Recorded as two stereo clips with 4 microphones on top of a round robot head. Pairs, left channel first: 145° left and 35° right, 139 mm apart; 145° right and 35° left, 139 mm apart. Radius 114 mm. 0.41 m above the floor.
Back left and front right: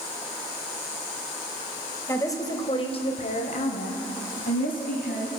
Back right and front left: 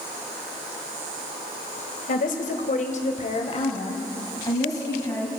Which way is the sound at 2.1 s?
140° right.